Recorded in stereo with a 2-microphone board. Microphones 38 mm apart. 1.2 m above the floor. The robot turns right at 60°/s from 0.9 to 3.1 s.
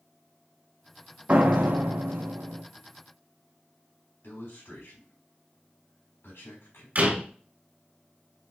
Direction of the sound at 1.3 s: 145° right.